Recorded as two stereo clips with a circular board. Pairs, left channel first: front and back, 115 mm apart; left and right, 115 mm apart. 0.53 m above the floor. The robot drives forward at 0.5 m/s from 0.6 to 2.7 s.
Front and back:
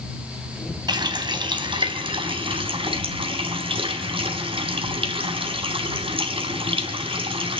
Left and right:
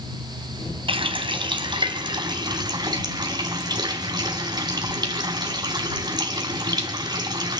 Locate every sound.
0.9 s a running tap: 130° right, 2.5 m; by 7.6 s 140° right, 3.5 m